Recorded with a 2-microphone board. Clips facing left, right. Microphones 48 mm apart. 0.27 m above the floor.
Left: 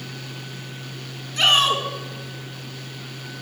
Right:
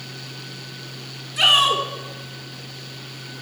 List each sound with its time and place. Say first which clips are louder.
1.4 s a shout: right 1 dB; 10° right (ahead or behind), 3 m